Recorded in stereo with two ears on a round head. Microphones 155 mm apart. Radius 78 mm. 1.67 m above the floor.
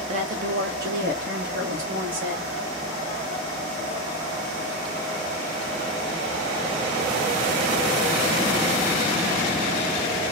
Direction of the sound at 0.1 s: 35° right (ahead or behind).